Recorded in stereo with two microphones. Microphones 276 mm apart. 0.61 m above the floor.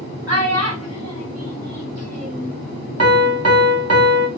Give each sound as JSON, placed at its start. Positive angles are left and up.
{"t": 0.3, "sound": "a child speaking", "side_deg": -65, "distance_m": 1.4}
{"t": 3.0, "sound": "a piano", "side_deg": -65, "distance_m": 0.8}